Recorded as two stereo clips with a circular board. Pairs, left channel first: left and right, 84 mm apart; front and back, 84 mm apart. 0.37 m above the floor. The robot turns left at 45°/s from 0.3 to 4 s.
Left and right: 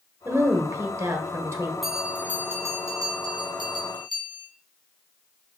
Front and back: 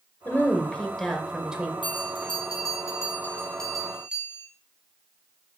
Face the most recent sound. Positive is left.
turn(degrees=-100)